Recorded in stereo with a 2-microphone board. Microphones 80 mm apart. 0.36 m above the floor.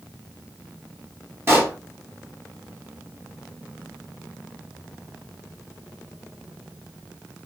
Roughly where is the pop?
Right.